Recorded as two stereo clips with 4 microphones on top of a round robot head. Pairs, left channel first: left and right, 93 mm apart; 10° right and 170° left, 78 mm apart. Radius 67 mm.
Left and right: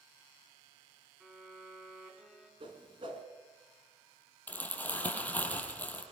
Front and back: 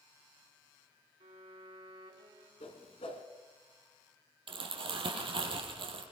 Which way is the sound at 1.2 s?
175° right.